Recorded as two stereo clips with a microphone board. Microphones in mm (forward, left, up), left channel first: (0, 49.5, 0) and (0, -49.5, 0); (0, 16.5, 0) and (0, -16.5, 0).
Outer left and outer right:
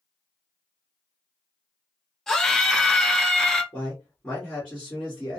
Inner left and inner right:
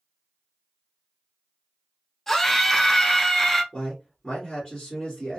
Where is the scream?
5° left (ahead or behind), 1.2 m.